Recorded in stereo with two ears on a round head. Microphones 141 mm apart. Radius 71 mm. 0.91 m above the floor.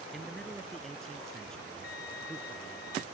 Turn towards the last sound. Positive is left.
turn(degrees=60)  # may be behind; listen again after turning